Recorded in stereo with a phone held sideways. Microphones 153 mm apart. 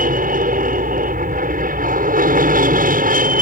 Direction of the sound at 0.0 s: 65° right (ahead or behind).